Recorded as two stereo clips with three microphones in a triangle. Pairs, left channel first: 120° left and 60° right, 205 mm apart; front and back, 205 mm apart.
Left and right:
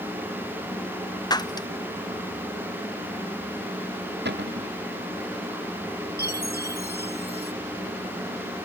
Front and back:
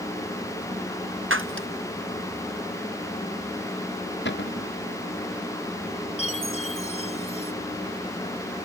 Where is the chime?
50° right.